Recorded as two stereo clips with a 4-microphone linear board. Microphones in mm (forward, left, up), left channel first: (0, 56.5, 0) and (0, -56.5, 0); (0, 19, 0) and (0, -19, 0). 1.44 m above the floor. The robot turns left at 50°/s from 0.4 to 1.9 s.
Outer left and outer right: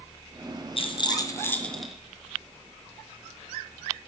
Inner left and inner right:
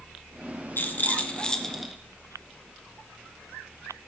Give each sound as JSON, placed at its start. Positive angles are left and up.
{"t": 0.8, "sound": "a rattle", "side_deg": 50, "distance_m": 0.8}